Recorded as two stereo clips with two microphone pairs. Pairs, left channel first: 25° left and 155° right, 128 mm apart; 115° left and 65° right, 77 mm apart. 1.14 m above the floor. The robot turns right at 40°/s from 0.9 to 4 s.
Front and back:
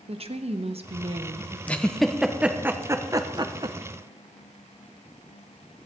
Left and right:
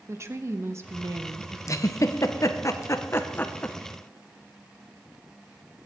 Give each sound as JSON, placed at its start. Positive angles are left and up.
{"t": 0.1, "sound": "a woman speaking", "azimuth_deg": -120, "distance_m": 0.9}
{"t": 1.7, "sound": "a giggle", "azimuth_deg": 95, "distance_m": 0.7}